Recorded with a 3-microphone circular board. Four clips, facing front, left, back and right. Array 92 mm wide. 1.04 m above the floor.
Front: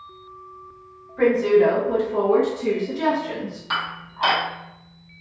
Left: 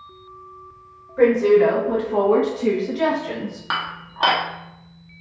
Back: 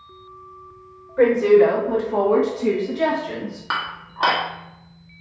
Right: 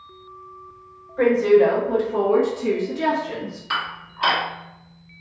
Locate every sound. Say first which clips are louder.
1.2 s a woman speaking: left 1 dB, back 3 dB; 155° left, 1.6 m; by 3.6 s 85° left, 1.2 m
3.7 s dishes clattering: even, back 1 dB; 125° left, 1.2 m